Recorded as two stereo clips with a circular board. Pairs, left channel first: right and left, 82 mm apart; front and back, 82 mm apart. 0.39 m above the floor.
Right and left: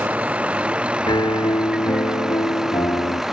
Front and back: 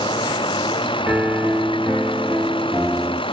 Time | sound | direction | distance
0.0 | a vehicle | 15° left | ?
1.1 | a piano | 110° right | ?